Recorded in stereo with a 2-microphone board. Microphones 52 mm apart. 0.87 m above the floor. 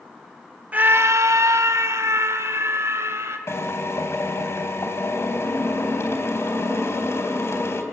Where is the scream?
30° right (ahead or behind), 0.8 m; by 3.4 s 55° right (ahead or behind), 4 m.